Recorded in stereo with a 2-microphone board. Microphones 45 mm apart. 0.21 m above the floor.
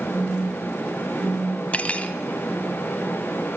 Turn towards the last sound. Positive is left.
turn(degrees=30)  # may be behind; listen again after turning